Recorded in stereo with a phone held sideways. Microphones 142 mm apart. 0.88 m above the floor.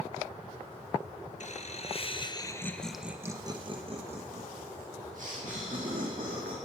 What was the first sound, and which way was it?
Laughter, 55° left (ahead or behind).